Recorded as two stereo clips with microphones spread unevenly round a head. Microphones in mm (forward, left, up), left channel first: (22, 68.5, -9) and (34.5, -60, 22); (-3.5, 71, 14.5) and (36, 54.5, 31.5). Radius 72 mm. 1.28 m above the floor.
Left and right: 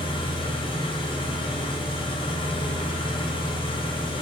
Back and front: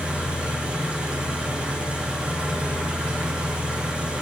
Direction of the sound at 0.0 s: 45° left.